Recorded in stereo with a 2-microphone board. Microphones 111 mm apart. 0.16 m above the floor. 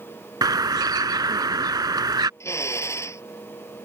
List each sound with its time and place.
0.4 s a bird: 40° right (ahead or behind)
2.4 s a drill: 25° left (ahead or behind)